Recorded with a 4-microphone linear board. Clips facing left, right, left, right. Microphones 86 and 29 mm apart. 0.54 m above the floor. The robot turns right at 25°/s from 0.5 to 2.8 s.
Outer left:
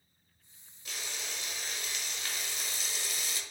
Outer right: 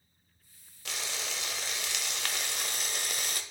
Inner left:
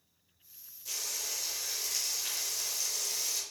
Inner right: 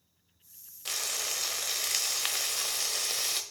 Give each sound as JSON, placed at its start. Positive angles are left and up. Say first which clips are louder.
{"t": 0.8, "sound": "frying", "louder": "outer right 4 dB, inner right 4 dB", "azimuth_deg": -105, "distance_m": 0.8}